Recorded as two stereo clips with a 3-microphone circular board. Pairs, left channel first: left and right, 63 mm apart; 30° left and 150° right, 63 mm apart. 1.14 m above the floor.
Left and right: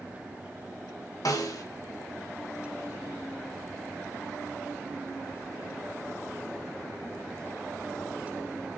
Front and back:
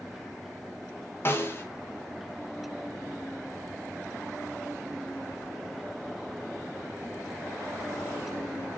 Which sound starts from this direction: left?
A snare drum, at 1.2 s.